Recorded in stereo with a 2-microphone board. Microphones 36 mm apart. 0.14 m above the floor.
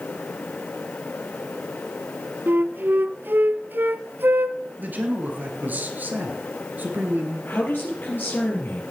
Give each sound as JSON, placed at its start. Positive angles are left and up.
{"t": 2.5, "sound": "a flute", "side_deg": -65, "distance_m": 0.6}
{"t": 4.8, "sound": "a man speaking", "side_deg": -50, "distance_m": 2.5}
{"t": 7.5, "sound": "a man speaking", "side_deg": 65, "distance_m": 4.5}